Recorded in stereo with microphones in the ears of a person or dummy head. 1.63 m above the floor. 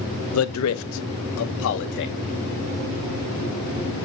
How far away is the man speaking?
About 0.9 m.